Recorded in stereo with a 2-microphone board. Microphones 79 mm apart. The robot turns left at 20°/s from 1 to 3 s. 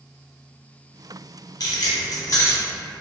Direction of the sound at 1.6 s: 50° left (ahead or behind).